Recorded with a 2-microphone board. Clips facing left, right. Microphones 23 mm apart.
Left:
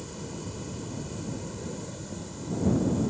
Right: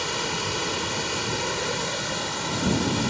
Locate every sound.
0.0 s running water: 70° right (ahead or behind)